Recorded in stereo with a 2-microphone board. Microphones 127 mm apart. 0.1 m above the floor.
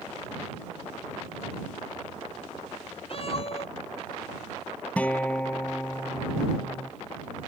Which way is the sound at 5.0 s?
10° left (ahead or behind).